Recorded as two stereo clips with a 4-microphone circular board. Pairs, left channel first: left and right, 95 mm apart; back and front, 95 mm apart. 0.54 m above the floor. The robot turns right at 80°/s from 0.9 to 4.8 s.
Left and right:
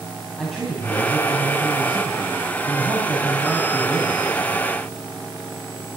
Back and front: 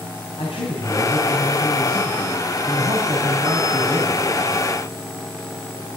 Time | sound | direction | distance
0.4 | a man speaking | 175° left | 3.5 m